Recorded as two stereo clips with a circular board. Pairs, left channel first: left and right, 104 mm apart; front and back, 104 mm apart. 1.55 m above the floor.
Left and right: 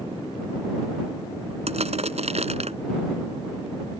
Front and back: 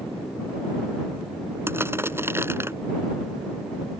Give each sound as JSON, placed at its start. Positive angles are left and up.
{"t": 1.7, "sound": "crushing", "azimuth_deg": -110}